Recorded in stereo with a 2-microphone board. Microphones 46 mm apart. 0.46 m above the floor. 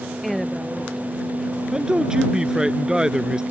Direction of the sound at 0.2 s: Centre (ahead or behind).